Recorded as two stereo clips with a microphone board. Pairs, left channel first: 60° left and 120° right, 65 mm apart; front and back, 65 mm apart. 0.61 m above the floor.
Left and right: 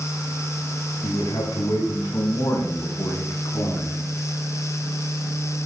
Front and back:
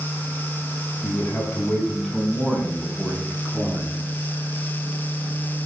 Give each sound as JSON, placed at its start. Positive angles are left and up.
{"t": 1.0, "sound": "a man speaking", "azimuth_deg": 65, "distance_m": 5.5}